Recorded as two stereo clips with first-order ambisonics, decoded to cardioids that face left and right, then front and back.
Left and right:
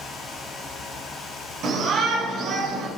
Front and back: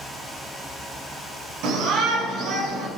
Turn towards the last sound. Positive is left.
turn(degrees=-135)